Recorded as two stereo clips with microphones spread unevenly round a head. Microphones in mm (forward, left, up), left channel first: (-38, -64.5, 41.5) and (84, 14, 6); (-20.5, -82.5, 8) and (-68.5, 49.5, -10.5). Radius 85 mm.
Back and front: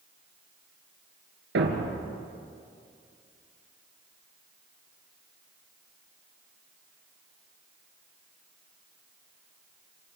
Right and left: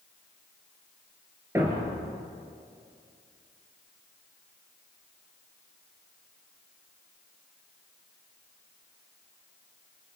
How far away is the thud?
About 3.5 m.